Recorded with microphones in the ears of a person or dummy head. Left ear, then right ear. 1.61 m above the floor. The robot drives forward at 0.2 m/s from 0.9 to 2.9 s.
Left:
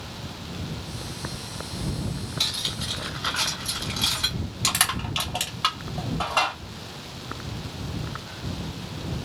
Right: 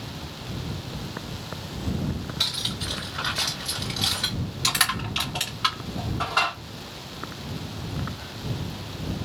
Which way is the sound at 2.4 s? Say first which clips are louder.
Even; centre (ahead or behind).